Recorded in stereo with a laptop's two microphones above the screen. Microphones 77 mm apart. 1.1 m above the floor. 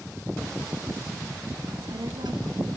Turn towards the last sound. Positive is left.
turn(degrees=-85)